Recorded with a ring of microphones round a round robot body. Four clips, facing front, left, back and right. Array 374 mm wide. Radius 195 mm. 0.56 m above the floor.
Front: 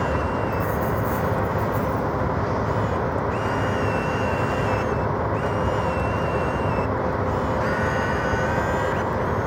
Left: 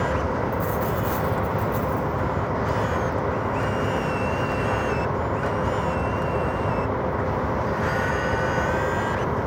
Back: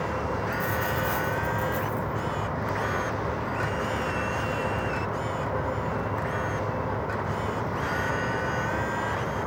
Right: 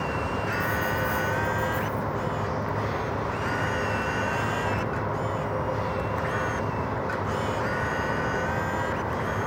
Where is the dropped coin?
130° left, 7.5 m.